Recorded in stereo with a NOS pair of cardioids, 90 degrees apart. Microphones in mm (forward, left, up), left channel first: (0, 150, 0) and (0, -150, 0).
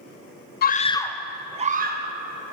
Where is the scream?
35° left, 0.5 m; by 2.1 s 35° right, 0.8 m.